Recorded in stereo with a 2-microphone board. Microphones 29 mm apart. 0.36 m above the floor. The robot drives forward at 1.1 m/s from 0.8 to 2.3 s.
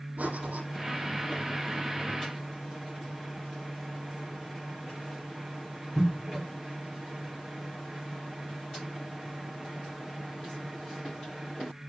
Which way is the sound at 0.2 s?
80° right.